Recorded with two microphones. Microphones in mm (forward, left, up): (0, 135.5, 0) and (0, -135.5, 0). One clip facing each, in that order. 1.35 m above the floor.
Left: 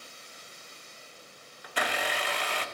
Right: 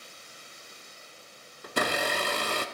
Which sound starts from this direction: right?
A blender, at 1.6 s.